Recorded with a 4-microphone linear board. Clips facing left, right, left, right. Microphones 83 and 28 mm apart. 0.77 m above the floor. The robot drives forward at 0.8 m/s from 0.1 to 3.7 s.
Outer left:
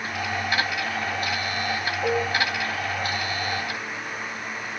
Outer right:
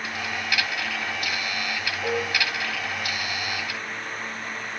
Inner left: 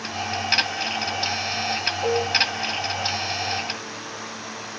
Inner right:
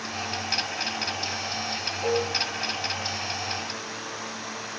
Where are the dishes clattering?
20° left (ahead or behind), 2 m.